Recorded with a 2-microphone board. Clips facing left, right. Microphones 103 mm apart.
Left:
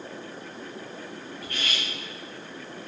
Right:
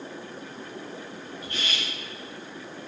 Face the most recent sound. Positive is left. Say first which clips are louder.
# even
turn(degrees=-25)  # may be behind; listen again after turning